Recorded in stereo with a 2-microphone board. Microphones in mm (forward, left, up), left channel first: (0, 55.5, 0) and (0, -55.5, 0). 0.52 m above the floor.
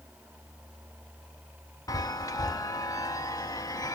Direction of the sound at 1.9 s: 35° left (ahead or behind).